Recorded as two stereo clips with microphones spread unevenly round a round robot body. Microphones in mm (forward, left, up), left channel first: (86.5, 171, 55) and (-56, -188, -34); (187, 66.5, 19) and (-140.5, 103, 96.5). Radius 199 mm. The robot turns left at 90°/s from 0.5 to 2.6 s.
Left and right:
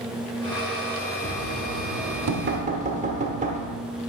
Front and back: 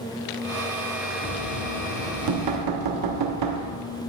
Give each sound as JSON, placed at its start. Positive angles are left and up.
{"t": 1.2, "sound": "knocking", "azimuth_deg": -50, "distance_m": 1.0}